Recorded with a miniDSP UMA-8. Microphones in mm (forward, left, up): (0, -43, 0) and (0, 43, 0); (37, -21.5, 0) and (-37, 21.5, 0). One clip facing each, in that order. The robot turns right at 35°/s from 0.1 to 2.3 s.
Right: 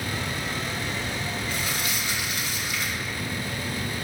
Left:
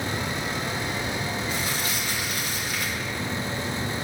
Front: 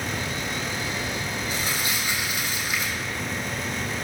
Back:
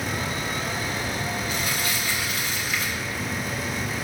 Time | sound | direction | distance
1.5 | crumpling | 20° left | 1.5 m